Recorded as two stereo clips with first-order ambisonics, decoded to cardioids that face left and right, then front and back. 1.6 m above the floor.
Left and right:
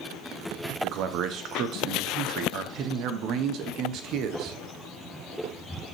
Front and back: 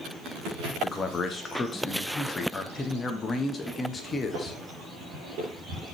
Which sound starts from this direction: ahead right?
A man speaking, at 0.8 s.